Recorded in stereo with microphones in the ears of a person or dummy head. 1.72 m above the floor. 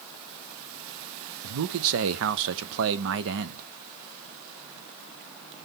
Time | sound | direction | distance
1.4 | a man speaking | 75° right (ahead or behind) | 0.7 m